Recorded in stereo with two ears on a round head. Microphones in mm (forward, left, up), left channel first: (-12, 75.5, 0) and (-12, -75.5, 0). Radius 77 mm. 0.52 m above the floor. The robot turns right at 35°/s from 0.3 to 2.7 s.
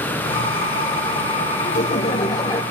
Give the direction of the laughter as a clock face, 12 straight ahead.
8 o'clock.